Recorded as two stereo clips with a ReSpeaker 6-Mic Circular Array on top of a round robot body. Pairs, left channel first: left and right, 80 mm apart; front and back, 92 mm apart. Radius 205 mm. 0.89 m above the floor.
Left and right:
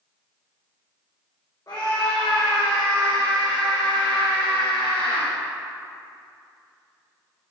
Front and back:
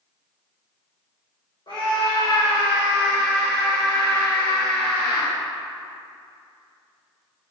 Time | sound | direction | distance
1.7 | a scream | 40° left | 3.5 m